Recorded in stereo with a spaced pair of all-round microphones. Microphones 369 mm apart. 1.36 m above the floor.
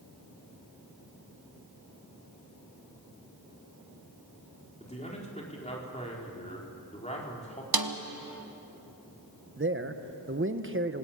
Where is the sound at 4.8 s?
15° left (ahead or behind), 4 m.